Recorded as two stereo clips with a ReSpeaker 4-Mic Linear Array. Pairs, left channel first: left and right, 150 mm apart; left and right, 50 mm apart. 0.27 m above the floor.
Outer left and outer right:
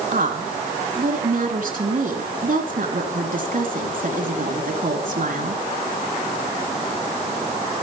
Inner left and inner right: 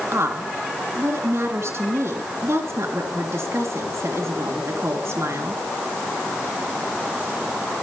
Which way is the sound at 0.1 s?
70° right (ahead or behind).